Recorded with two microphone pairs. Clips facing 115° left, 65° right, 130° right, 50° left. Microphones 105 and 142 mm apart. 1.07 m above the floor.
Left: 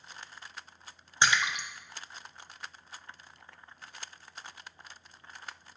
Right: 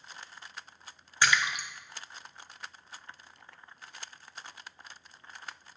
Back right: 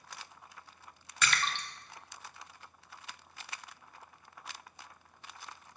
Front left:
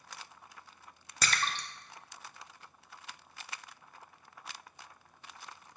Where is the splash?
70° left, 0.6 m.